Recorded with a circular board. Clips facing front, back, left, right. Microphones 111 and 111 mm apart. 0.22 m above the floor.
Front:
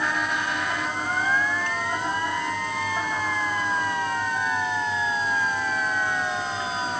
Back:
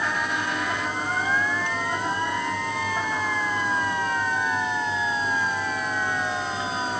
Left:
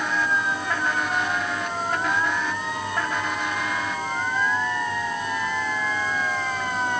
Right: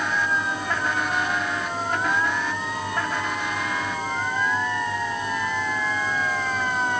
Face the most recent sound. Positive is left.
No sound to turn to.